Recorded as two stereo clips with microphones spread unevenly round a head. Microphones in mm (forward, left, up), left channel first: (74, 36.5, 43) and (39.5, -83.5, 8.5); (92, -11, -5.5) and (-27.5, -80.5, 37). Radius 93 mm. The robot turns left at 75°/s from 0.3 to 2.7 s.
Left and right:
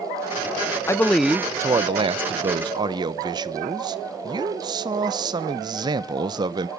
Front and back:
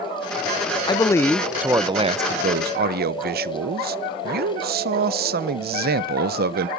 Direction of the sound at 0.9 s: 5° right.